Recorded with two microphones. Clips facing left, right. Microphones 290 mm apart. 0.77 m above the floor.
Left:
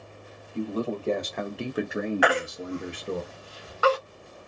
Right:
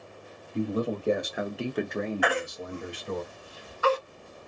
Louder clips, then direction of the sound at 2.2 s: Left 3 dB; 70° left (ahead or behind).